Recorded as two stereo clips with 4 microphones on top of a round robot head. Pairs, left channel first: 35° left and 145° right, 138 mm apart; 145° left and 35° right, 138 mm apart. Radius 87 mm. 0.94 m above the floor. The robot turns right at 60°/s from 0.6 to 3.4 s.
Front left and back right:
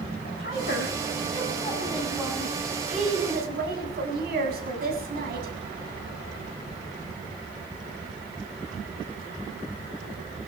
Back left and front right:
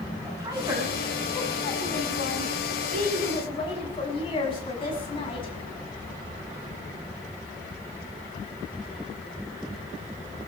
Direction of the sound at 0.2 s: 35° left.